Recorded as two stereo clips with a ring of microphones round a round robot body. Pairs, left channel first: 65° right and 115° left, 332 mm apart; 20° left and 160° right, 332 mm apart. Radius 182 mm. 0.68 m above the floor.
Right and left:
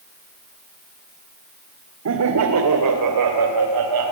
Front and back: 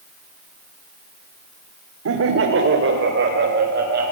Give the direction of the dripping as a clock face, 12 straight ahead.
No dripping in this recording.